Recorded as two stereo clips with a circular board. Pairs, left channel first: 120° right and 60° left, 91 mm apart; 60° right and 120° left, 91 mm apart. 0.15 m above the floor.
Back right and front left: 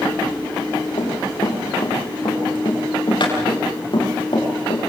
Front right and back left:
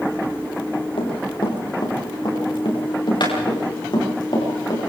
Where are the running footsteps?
85° right, 7 m; by 4.8 s 100° right, 8.5 m.